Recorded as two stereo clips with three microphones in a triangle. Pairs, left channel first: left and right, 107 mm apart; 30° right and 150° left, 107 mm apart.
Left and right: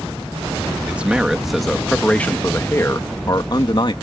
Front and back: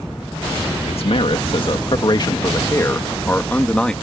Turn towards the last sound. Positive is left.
turn(degrees=55)